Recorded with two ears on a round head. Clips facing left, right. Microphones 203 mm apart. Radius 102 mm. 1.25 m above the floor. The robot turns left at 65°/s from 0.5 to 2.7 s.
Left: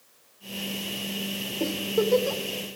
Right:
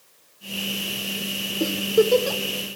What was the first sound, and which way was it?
A giggle, 15° right (ahead or behind).